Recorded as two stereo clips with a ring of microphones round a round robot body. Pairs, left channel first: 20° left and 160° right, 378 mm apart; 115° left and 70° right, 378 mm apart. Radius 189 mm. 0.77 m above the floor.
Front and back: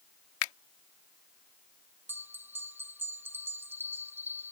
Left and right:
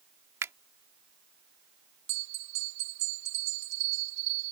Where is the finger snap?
15° left.